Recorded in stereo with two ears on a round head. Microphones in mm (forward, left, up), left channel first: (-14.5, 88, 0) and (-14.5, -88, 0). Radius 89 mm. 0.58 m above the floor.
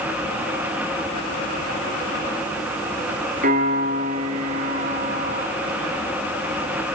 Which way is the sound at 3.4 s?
45° right (ahead or behind).